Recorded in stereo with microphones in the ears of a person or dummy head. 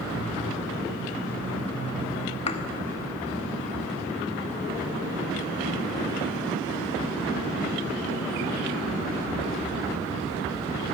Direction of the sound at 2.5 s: 35° left (ahead or behind).